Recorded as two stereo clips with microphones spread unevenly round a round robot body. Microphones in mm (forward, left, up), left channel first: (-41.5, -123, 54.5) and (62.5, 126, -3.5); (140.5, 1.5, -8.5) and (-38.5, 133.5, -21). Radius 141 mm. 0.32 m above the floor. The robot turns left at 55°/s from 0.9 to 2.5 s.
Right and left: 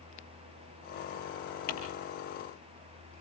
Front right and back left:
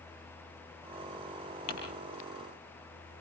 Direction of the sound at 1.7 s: 55° right.